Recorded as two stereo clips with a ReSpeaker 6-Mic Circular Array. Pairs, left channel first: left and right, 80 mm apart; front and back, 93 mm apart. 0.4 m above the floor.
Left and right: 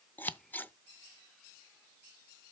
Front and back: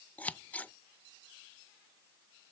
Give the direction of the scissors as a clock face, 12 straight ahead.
10 o'clock.